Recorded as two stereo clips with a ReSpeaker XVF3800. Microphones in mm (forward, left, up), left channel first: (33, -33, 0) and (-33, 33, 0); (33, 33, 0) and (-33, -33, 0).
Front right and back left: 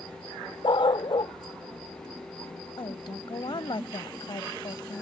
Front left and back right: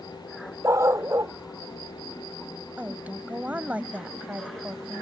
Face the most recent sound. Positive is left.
turn(degrees=-65)